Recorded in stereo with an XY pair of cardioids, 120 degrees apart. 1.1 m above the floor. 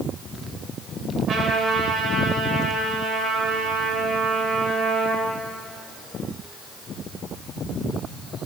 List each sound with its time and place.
1.3 s a trumpet: 45° right, 3 m